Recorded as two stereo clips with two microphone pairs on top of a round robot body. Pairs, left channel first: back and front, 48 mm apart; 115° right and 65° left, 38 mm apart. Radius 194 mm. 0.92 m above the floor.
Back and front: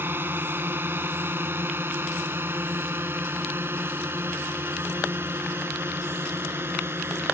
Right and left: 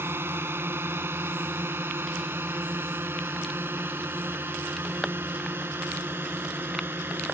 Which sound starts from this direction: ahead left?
A drone, at 0.0 s.